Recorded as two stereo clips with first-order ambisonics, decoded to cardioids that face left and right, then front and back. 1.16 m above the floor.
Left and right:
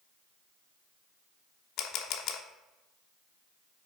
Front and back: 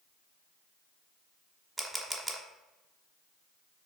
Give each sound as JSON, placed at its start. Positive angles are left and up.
{"t": 1.8, "sound": "a camera shutter", "azimuth_deg": 110, "distance_m": 0.9}